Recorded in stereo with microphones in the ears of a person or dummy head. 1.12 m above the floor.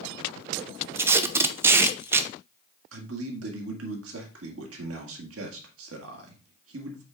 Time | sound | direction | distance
0.9 | tape being pulled | 20° right (ahead or behind) | 0.5 m
2.9 | a man speaking | 75° right (ahead or behind) | 2 m